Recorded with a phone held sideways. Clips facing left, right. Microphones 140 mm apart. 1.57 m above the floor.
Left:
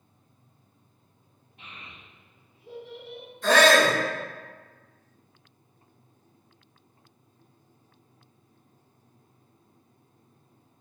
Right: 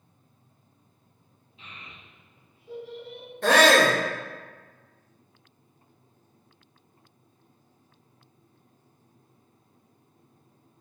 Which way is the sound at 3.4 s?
60° right (ahead or behind).